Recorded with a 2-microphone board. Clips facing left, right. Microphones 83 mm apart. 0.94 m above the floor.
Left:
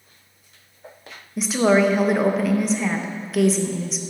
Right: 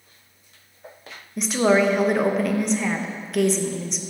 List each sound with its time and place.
1.4 s a woman speaking: centre (ahead or behind), 0.6 m